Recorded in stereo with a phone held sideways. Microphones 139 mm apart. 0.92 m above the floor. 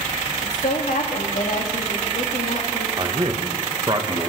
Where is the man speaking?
35° right (ahead or behind), 0.7 m.